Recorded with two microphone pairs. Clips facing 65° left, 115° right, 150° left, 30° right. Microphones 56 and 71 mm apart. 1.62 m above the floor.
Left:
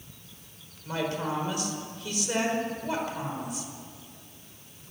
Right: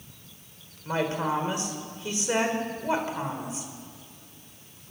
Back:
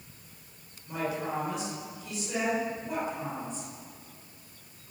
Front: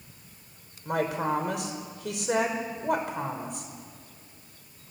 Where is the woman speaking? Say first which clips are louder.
Right 3 dB, front 5 dB; 50° right, 5 m.